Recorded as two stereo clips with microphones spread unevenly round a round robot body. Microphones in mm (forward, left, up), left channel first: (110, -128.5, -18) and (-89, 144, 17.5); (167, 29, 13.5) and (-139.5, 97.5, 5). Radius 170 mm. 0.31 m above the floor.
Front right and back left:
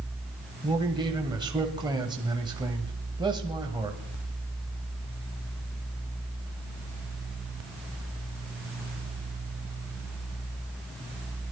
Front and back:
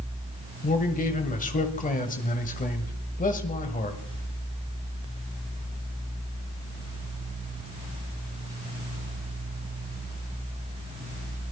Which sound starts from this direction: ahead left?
A man speaking, at 0.6 s.